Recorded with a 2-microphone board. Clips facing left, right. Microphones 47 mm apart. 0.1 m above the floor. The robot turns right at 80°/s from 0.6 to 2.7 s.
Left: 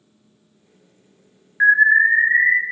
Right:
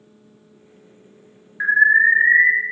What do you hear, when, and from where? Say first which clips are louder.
1.6 s an alarm: left 1 dB; 165° left, 1.2 m; by 2.5 s 120° right, 1.2 m